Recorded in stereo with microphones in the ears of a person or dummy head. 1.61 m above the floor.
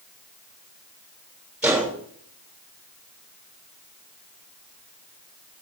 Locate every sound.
1.6 s a gunshot: 5° right (ahead or behind), 8 m